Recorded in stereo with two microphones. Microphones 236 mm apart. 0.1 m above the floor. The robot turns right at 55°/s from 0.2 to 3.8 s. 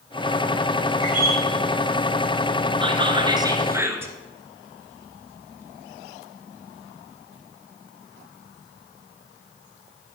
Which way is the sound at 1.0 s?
Centre (ahead or behind).